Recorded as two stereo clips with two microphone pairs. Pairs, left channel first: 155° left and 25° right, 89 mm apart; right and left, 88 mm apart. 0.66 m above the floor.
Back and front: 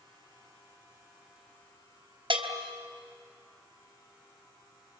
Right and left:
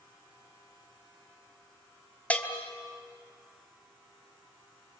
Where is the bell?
20° right, 2.5 m.